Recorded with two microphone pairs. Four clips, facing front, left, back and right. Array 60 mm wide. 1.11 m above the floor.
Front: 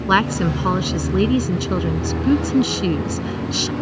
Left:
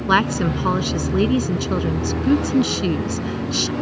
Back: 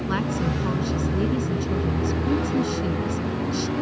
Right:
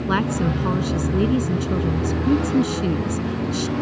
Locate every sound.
0.1 s a woman speaking: 40° left